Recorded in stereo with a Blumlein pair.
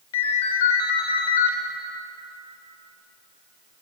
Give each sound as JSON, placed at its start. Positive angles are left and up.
{"t": 0.1, "sound": "a ringtone", "azimuth_deg": 65, "distance_m": 1.3}